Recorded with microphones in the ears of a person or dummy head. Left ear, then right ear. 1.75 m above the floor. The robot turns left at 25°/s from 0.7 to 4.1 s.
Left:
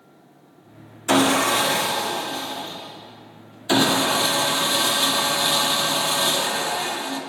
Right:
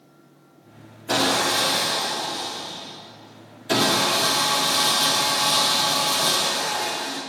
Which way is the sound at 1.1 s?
100° left.